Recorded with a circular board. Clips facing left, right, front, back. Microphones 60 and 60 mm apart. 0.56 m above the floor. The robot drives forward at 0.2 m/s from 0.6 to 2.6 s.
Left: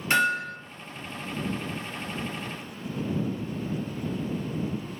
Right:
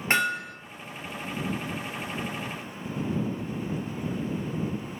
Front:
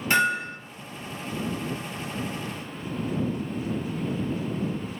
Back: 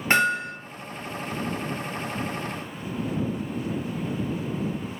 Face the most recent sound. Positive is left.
turn(degrees=-150)